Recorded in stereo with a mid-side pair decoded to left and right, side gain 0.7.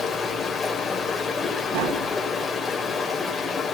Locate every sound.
0.0 s running water: 20° left, 4 m
1.7 s tapping: 65° right, 2.5 m